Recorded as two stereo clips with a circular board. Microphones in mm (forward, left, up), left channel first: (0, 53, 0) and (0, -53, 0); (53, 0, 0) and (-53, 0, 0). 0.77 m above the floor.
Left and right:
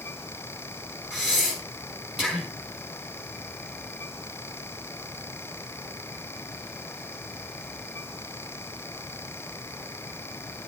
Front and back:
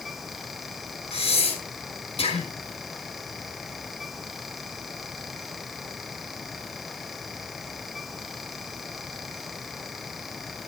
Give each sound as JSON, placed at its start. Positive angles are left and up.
{"t": 1.1, "sound": "breathing", "azimuth_deg": -5, "distance_m": 4.5}